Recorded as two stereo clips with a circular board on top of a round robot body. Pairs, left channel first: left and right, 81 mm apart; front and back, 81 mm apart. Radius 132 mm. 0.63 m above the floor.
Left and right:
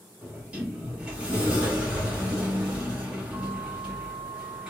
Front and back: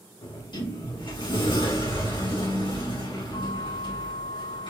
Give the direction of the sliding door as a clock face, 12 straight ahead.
12 o'clock.